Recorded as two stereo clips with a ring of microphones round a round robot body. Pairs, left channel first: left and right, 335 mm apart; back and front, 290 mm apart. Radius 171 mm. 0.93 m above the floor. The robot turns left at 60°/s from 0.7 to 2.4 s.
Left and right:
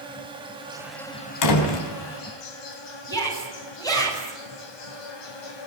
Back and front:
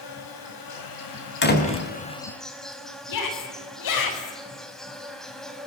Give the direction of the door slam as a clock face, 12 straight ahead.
8 o'clock.